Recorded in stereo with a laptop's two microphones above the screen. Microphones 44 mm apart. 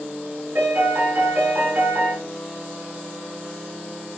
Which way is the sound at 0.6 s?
55° right (ahead or behind).